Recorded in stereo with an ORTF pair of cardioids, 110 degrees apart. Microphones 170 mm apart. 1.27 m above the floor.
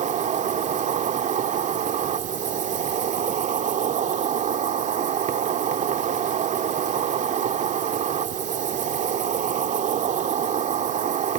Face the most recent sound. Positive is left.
turn(degrees=-50)